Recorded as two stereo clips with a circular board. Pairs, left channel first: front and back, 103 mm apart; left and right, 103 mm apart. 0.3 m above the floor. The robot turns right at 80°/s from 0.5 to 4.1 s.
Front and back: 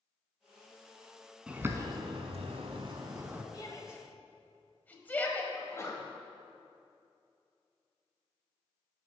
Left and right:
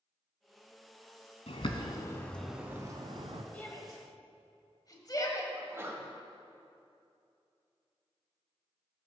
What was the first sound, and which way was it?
A bird, 100° left.